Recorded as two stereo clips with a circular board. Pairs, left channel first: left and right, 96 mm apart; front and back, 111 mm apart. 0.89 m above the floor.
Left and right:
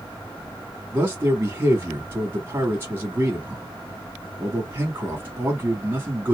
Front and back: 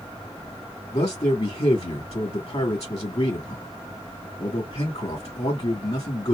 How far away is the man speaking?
About 1.4 m.